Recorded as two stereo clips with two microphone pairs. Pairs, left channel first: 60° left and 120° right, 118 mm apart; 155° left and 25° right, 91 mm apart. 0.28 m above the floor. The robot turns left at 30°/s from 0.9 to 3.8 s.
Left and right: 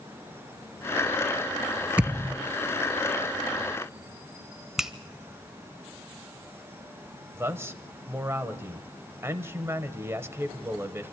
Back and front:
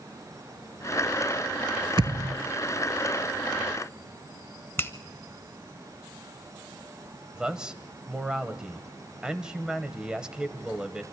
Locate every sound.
2.0 s a thud: 40° right, 0.7 m; by 2.4 s 50° right, 0.7 m
4.8 s a finger snap: 160° left, 0.7 m
7.3 s a man speaking: 90° right, 1.0 m